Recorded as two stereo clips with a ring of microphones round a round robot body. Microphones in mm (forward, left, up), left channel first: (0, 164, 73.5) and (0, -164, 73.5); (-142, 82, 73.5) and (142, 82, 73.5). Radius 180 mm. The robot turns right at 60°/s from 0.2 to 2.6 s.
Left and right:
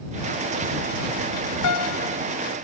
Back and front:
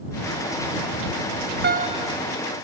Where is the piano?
55° left; by 2.2 s 85° left.